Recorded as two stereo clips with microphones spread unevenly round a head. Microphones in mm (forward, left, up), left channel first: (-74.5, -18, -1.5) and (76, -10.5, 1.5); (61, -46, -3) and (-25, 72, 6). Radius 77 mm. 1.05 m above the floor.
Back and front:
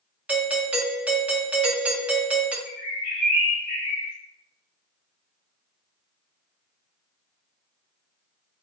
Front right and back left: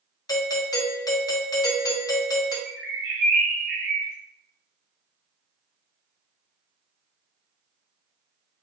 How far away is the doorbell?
About 0.7 m.